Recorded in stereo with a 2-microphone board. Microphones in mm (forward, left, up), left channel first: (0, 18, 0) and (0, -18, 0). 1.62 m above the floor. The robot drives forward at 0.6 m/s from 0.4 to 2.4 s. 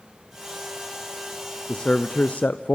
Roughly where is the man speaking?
Left.